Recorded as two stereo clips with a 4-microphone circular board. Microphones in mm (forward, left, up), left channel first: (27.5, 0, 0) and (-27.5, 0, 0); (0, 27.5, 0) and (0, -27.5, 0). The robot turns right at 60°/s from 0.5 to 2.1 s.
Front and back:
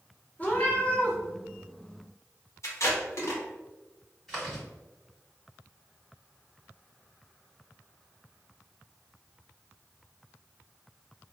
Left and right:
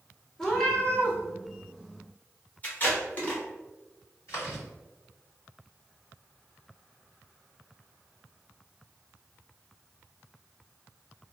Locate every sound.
0.4 s a cat meowing: 15° left, 0.6 m; by 1.2 s 55° left, 0.6 m
2.6 s tape being pulled: 30° left, 0.8 m
4.3 s chewing: 80° left, 1.7 m